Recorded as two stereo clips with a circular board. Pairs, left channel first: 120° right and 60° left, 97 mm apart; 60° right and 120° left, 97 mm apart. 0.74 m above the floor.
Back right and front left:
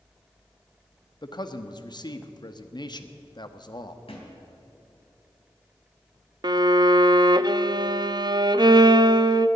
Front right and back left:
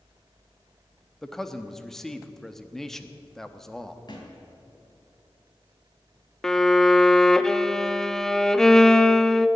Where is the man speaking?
145° right, 1.0 m.